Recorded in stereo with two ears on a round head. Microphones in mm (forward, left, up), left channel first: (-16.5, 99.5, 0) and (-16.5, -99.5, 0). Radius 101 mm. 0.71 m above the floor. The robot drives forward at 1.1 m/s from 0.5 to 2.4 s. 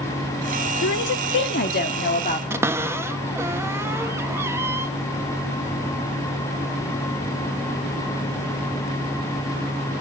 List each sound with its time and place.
0.8 s a woman speaking: 50° left (ahead or behind), 1.4 m; by 2.4 s 35° left (ahead or behind), 2.0 m
2.5 s a cupboard door: 10° right (ahead or behind), 0.5 m